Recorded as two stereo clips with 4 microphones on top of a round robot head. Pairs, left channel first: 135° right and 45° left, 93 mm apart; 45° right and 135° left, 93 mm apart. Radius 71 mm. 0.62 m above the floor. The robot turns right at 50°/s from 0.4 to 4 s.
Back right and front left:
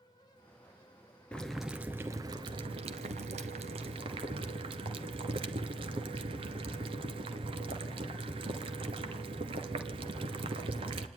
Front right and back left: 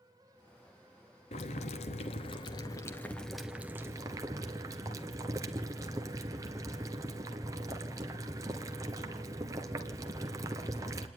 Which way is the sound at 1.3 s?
55° right.